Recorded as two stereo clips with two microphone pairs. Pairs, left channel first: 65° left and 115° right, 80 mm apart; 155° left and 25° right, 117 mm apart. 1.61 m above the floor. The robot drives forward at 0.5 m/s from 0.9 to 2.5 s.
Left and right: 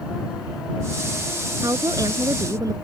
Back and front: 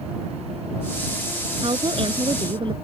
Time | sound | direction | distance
1.6 | a woman speaking | 70° right | ?